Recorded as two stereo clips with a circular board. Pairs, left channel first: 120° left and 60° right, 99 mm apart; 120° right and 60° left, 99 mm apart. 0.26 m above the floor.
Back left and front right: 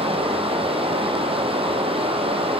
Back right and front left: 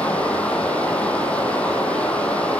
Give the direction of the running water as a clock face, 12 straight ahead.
1 o'clock.